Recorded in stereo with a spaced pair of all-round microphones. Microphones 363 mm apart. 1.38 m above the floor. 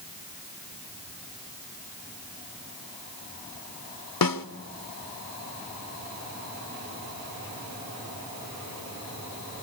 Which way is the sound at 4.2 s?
65° left (ahead or behind).